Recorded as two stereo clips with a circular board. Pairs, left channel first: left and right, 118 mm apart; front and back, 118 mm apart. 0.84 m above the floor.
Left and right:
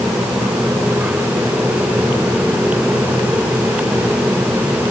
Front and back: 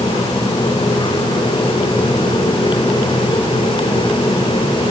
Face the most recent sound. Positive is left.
No sound to turn to.